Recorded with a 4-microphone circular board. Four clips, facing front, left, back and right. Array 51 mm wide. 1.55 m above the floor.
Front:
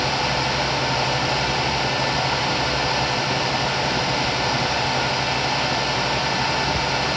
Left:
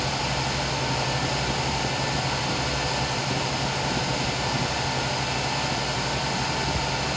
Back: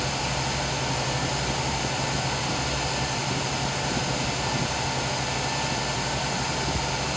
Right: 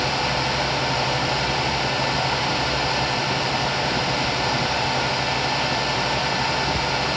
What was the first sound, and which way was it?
Only background noise.